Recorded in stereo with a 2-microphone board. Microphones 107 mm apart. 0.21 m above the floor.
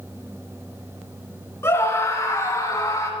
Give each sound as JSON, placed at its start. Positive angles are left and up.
{"t": 1.6, "sound": "a scream", "side_deg": 25, "distance_m": 3.0}